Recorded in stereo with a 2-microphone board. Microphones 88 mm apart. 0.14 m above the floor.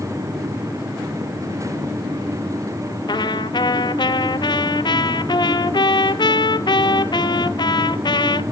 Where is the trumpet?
60° left (ahead or behind), 0.6 m.